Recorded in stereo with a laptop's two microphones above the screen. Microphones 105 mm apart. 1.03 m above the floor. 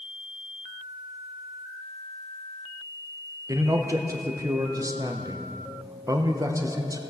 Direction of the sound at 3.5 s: 30° right (ahead or behind).